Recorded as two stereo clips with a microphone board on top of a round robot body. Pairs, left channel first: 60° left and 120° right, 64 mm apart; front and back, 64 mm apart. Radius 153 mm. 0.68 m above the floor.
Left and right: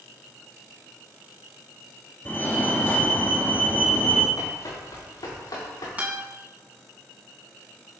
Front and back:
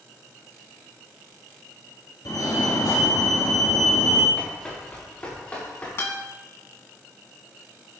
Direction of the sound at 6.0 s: 55° right.